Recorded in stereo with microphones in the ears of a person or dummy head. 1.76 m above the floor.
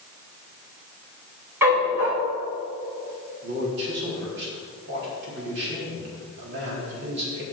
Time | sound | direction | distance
1.6 | a dog barking | 10° right (ahead or behind) | 1.9 m
3.4 | a man speaking | 70° right (ahead or behind) | 3.5 m